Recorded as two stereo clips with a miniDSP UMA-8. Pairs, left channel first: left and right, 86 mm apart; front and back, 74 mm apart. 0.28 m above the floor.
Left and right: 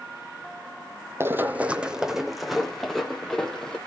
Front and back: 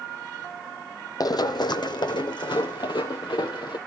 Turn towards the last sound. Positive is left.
turn(degrees=10)